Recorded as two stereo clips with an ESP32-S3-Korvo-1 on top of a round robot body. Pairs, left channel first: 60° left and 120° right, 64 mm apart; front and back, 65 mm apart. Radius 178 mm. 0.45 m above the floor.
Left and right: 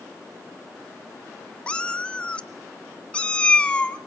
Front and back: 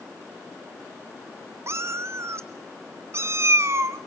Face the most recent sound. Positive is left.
turn(degrees=135)